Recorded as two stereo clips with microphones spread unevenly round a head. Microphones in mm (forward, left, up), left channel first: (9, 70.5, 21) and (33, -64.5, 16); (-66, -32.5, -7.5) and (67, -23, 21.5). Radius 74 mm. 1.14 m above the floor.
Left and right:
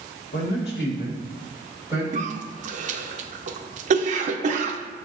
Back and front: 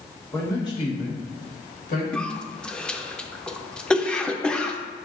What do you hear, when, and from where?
0.3 s a man speaking: 105° left, 1.2 m; by 2.0 s 170° left, 1.8 m
2.1 s a cough: 100° right, 0.5 m